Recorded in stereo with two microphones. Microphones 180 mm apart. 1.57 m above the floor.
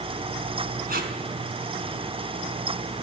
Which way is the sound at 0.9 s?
55° right (ahead or behind).